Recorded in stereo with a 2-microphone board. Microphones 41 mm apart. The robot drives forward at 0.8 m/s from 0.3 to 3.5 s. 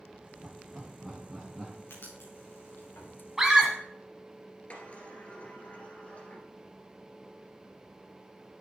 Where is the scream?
10° right (ahead or behind), 1.3 m.